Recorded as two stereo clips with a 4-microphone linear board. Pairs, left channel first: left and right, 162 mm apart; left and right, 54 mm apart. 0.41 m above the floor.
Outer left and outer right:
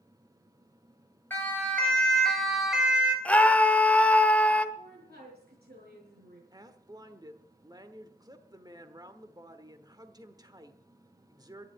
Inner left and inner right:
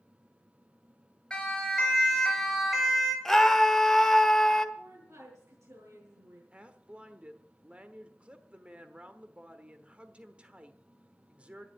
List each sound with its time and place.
1.3 s a siren: 15° left (ahead or behind), 3.5 m; by 3.1 s 10° right (ahead or behind), 3 m
3.2 s a scream: 10° left (ahead or behind), 1.2 m
4.8 s a woman speaking: 75° right (ahead or behind), 7 m
6.5 s a woman speaking: 25° right (ahead or behind), 1.2 m